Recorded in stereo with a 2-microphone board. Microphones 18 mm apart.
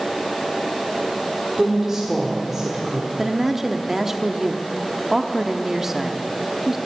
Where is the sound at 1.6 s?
20° right (ahead or behind), 1.5 m.